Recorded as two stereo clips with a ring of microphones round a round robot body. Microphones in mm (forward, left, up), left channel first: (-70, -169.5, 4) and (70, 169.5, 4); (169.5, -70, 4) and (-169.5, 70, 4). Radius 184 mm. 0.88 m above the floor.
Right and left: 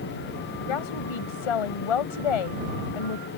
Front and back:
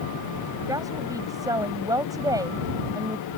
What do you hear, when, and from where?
0.7 s a woman speaking: 120° right